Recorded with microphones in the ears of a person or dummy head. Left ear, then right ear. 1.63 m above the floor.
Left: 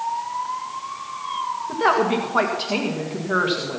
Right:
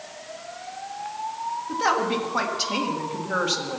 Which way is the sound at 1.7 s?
15° left (ahead or behind).